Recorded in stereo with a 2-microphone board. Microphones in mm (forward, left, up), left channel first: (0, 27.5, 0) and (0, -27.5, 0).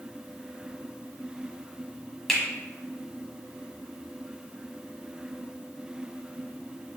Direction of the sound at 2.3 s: 5° left (ahead or behind).